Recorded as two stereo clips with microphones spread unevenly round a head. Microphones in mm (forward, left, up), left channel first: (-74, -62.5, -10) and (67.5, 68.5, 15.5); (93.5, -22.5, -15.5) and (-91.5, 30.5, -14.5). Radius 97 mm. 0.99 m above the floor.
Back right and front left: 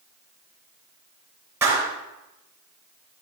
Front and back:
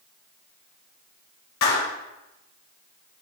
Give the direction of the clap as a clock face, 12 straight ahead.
1 o'clock.